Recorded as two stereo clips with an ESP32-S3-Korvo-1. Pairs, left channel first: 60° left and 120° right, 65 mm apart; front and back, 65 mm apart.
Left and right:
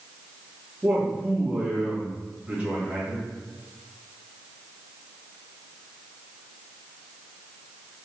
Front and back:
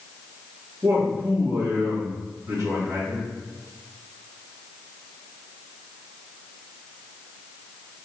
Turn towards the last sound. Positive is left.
turn(degrees=175)